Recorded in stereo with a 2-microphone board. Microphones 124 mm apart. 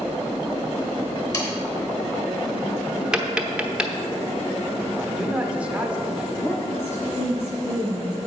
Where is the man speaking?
10° right (ahead or behind), 1.3 m.